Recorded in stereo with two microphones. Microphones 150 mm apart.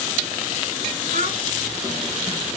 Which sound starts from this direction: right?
A child speaking, at 1.1 s.